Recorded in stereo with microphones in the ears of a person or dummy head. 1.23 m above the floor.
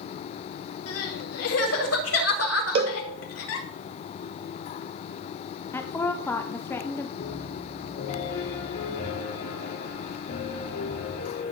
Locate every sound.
0.9 s crying: 80° left, 2.5 m
2.8 s a cowbell: 30° right (ahead or behind), 0.6 m
5.7 s a woman speaking: 15° left (ahead or behind), 0.7 m
7.2 s a piano: 50° left (ahead or behind), 3.5 m